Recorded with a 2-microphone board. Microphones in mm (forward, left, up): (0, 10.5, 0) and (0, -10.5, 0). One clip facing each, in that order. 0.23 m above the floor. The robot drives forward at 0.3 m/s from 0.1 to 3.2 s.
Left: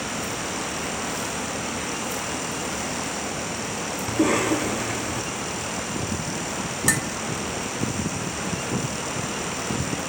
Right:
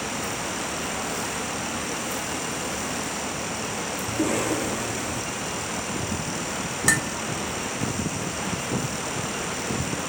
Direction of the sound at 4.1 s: 45° left (ahead or behind).